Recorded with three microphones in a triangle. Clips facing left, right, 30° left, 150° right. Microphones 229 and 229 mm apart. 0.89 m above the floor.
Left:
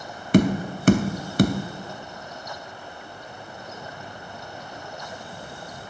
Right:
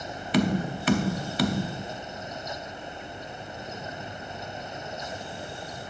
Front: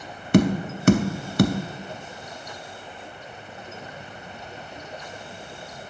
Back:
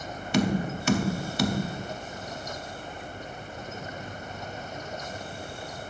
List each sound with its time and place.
0.3 s tapping: 55° left, 0.6 m